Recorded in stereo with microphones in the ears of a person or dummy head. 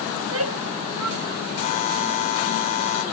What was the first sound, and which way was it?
A shout, 85° right.